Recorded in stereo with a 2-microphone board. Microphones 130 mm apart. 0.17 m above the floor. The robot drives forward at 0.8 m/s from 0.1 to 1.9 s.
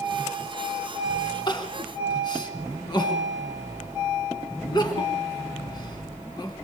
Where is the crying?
35° left (ahead or behind), 1.8 m.